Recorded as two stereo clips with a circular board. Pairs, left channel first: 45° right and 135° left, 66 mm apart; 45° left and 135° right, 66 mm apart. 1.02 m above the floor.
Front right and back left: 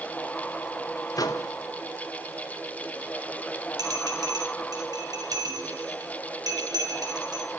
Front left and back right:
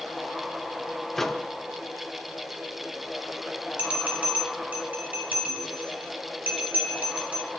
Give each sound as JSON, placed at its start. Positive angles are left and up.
{"t": 1.2, "sound": "a microwave", "azimuth_deg": -40, "distance_m": 0.9}
{"t": 3.8, "sound": "a bell", "azimuth_deg": 155, "distance_m": 4.0}